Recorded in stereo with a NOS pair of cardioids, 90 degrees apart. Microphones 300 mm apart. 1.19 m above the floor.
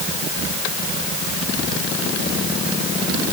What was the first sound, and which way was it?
Only background noise.